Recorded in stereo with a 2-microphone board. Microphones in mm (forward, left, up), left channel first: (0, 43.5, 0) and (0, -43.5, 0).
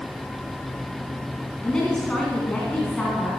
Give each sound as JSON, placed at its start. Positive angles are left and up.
{"t": 1.6, "sound": "a woman speaking", "side_deg": 10, "distance_m": 2.5}